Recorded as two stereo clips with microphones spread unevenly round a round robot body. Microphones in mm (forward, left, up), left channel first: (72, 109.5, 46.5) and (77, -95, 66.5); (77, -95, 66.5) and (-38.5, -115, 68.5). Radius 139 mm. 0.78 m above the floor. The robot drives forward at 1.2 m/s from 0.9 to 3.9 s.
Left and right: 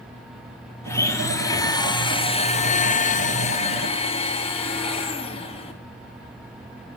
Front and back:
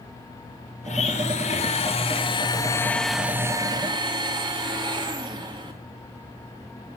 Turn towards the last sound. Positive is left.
turn(degrees=145)